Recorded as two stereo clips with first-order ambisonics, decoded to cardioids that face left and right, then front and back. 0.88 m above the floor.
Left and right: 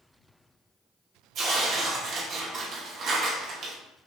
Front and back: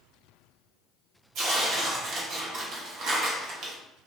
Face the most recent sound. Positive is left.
turn(degrees=-140)